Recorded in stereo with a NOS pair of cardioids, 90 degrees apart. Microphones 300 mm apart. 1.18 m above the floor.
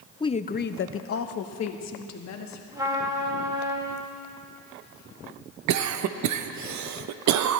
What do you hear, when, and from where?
0.2 s a woman speaking: 15° left, 0.6 m; by 2.6 s 65° left, 2.0 m
2.7 s a trumpet: 10° right, 2 m
5.7 s a cough: 70° right, 0.9 m